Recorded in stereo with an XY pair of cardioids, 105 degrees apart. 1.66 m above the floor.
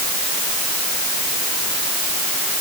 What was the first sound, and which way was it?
Only background noise.